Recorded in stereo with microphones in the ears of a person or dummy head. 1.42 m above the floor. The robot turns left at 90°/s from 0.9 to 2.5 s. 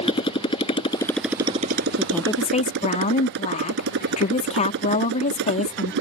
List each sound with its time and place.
0.0 s a motorcycle: 30° left; by 6.0 s 115° right
2.0 s a woman speaking: 165° right; by 5.9 s 145° left